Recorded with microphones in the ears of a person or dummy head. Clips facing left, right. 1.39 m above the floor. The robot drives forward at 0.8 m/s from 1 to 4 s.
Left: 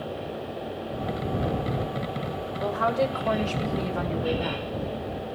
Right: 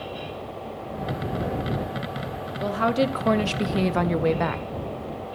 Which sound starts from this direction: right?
A woman speaking, at 2.6 s.